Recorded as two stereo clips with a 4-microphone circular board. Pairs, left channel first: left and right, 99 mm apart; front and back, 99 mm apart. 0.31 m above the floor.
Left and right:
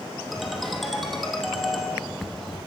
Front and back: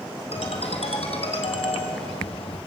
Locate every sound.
0.3 s a ringtone: straight ahead, 3.5 m